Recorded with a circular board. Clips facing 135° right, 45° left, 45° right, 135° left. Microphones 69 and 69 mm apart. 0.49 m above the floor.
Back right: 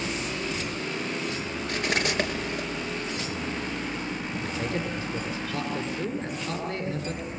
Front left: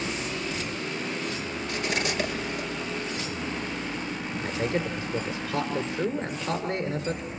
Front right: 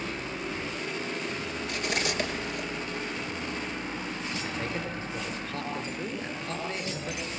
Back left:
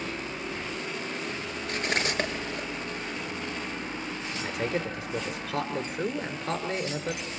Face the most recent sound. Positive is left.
turn(degrees=105)